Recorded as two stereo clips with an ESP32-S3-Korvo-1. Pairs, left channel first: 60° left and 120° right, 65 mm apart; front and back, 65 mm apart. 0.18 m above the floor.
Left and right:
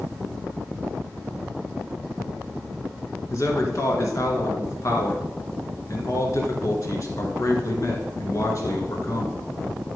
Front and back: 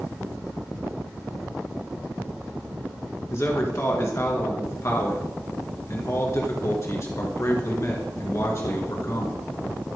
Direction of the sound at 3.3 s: 35° left.